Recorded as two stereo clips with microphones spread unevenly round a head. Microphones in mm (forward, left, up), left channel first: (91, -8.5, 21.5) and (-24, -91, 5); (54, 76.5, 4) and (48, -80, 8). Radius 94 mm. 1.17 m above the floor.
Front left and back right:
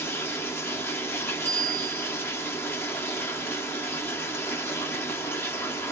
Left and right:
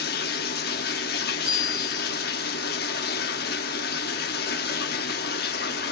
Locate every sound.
0.0 s running water: 110° left, 1.0 m
1.4 s a bicycle bell: 110° right, 5 m